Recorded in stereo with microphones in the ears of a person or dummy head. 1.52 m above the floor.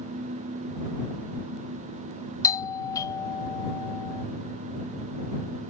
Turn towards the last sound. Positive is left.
turn(degrees=20)  # may be behind; listen again after turning